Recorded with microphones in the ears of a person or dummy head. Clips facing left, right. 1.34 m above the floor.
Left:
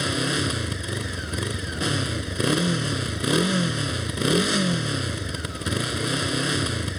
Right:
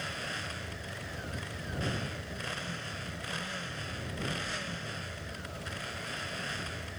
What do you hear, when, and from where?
0.0 s a motorcycle: 75° left (ahead or behind)